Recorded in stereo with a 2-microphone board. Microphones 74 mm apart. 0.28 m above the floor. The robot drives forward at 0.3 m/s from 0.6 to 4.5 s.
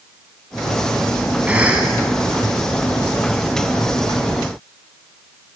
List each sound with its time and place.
1.5 s a cough: 15° right (ahead or behind), 2.5 m